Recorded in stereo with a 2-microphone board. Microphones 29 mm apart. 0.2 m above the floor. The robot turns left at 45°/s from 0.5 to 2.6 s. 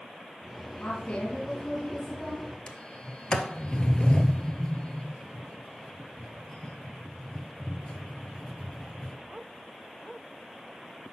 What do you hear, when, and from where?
0.8 s a woman speaking: 100° left, 2 m; by 2.5 s 25° left, 2 m
2.7 s a sliding door: 30° left (ahead or behind), 0.9 m